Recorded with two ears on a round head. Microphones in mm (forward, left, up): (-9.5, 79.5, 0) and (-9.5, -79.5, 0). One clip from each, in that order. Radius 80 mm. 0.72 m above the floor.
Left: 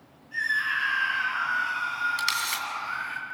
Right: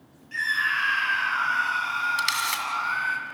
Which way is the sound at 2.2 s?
5° right (ahead or behind).